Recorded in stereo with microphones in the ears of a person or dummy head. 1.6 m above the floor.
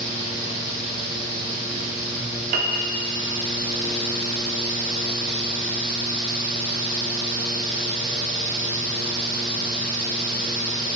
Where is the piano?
50° right (ahead or behind), 1.1 m.